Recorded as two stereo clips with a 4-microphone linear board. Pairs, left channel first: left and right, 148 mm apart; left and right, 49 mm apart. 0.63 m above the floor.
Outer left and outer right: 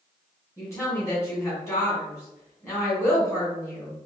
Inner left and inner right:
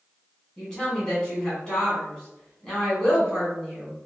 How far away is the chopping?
No chopping in this recording.